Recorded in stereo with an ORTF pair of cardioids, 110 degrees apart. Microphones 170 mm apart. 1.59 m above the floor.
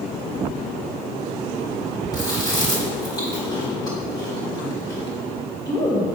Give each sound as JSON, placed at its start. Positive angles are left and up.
{"t": 2.1, "sound": "chewing", "azimuth_deg": 25, "distance_m": 2.5}